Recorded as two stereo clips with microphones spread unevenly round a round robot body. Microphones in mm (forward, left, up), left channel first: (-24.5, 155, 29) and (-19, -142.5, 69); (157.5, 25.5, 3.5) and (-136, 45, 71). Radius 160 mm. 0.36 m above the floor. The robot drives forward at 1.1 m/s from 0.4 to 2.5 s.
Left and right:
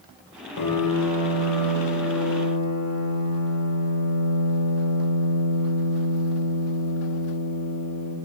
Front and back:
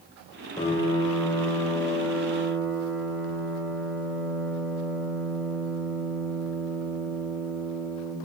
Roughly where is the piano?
Left.